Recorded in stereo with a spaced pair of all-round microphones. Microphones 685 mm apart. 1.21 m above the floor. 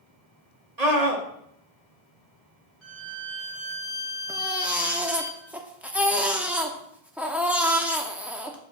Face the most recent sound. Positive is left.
turn(degrees=0)  # may be behind; listen again after turning